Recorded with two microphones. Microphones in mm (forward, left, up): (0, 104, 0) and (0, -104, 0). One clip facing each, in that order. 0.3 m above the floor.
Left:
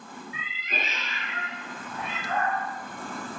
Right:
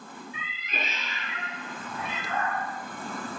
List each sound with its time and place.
0.3 s a cat meowing: 85° left, 6 m; by 2.6 s 60° left (ahead or behind), 5 m